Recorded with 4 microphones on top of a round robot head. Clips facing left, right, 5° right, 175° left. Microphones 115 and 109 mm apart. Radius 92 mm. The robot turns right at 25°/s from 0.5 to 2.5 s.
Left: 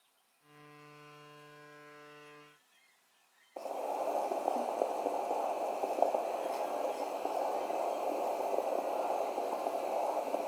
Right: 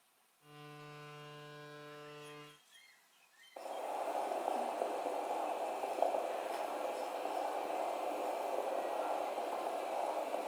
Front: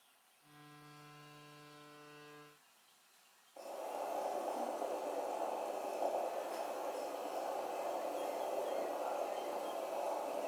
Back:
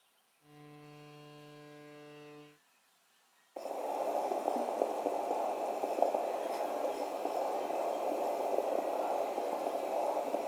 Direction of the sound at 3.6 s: 145° left.